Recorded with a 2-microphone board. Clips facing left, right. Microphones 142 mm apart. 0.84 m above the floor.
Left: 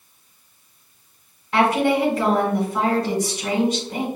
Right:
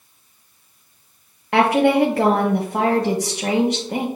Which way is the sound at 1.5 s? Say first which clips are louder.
Right 3 dB; 65° right (ahead or behind).